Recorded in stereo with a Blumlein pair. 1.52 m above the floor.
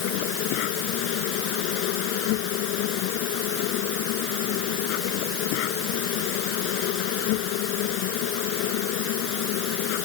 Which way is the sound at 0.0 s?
45° left.